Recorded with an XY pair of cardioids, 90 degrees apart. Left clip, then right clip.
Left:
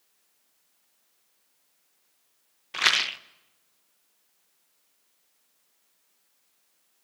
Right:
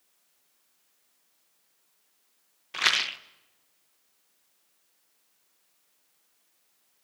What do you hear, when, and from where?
2.7 s a rattle: 15° left, 0.7 m